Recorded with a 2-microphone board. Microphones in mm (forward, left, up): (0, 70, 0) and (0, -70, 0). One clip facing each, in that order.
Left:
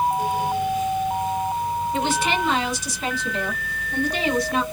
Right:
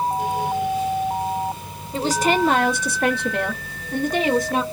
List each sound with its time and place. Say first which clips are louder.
1.9 s a woman speaking: right 6 dB; 35° right (ahead or behind), 0.8 m; by 4.6 s 45° right (ahead or behind), 1.3 m